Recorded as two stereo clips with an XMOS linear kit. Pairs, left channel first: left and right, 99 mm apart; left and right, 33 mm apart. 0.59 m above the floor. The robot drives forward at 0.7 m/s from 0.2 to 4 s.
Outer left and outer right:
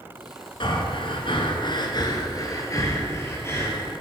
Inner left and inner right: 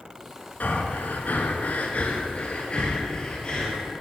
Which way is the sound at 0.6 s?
65° left (ahead or behind).